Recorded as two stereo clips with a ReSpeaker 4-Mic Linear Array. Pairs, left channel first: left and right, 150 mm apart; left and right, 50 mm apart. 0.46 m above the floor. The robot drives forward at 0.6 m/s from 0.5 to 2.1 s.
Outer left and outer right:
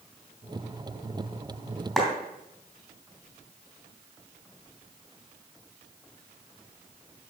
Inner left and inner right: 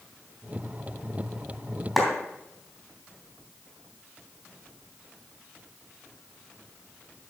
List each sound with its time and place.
2.0 s a clap: centre (ahead or behind), 2.5 m